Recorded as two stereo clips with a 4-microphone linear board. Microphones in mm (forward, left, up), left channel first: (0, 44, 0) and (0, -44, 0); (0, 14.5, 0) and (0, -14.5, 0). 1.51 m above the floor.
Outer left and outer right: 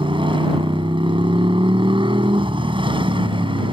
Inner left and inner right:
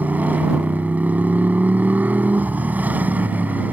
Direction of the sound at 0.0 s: 75° right (ahead or behind).